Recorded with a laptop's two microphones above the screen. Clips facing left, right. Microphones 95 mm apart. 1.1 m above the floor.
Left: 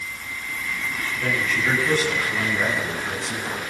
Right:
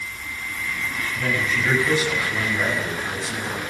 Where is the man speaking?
15° right (ahead or behind), 8 m; by 3.6 s 5° left (ahead or behind), 10 m.